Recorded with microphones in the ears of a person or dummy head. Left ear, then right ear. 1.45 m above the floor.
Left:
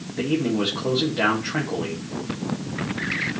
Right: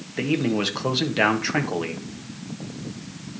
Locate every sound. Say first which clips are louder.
0.2 s a man speaking: even; 75° right (ahead or behind), 1.4 m